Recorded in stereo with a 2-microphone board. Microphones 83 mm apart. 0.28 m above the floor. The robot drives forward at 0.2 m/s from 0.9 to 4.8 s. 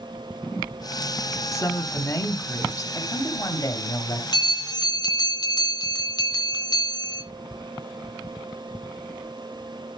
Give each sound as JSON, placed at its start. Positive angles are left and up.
{"t": 1.5, "sound": "a woman speaking", "side_deg": 30, "distance_m": 1.6}
{"t": 2.9, "sound": "a man speaking", "side_deg": 35, "distance_m": 1.3}
{"t": 4.3, "sound": "a bell", "side_deg": 50, "distance_m": 3.0}